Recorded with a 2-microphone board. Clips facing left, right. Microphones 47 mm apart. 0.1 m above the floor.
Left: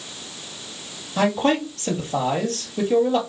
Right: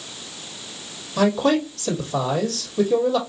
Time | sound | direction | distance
1.2 | a man speaking | 35° left (ahead or behind) | 2 m